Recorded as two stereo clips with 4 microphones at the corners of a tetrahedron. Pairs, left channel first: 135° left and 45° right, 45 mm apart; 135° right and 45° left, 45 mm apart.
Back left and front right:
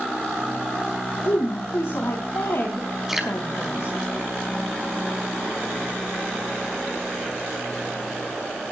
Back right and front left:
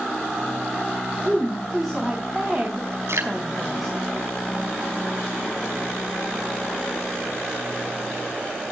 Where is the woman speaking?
130° left, 3.5 m.